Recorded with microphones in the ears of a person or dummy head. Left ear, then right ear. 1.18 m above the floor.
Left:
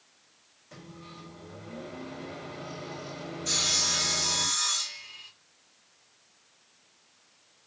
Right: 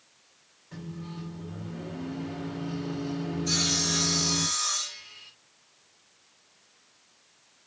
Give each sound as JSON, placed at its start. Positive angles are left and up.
{"t": 0.7, "sound": "a microwave", "side_deg": 70, "distance_m": 3.5}
{"t": 3.5, "sound": "sawing", "side_deg": 75, "distance_m": 3.0}